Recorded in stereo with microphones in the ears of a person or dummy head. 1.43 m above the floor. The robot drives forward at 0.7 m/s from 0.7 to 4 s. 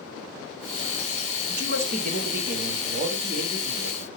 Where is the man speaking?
65° right (ahead or behind), 2.5 m; by 4.1 s 40° right (ahead or behind), 3.5 m.